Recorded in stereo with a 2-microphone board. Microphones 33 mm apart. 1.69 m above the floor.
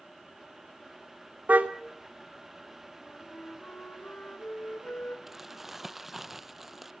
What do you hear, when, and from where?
1.5 s a car horn: 65° right (ahead or behind), 2 m
3.0 s a flute: 65° left (ahead or behind), 4 m
5.3 s crumpling: 10° right (ahead or behind), 1.0 m